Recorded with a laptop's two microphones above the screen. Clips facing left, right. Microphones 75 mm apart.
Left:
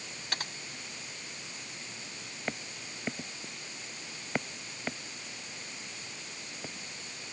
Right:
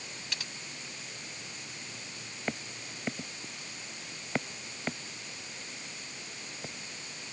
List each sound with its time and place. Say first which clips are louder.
0.3 s typing on a keyboard: left 5 dB; 45° left (ahead or behind)